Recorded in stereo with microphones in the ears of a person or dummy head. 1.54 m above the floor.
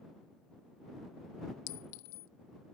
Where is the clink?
60° left (ahead or behind).